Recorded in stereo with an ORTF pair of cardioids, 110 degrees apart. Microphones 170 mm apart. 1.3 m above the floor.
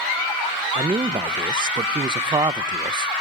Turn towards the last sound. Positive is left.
turn(degrees=-25)